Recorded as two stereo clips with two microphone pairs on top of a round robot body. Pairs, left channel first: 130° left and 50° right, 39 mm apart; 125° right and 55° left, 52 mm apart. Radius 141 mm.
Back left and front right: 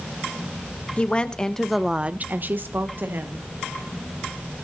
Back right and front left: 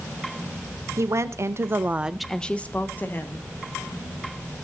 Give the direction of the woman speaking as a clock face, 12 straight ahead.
9 o'clock.